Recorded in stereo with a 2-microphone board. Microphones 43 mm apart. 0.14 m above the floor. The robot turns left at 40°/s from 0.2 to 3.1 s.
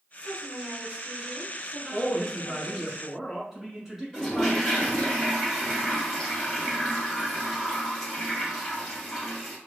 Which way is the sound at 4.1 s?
10° left (ahead or behind).